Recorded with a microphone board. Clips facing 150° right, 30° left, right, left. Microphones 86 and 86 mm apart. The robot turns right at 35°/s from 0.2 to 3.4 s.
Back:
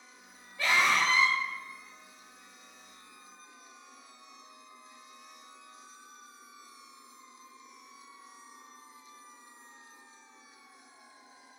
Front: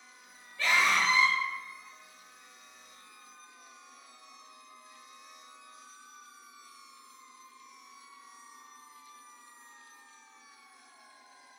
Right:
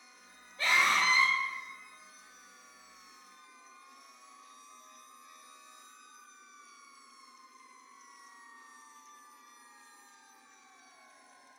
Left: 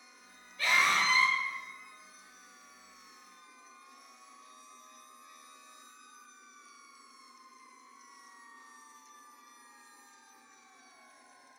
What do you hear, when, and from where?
0.6 s a scream: 90° right, 1.1 m; by 1.4 s 60° right, 1.1 m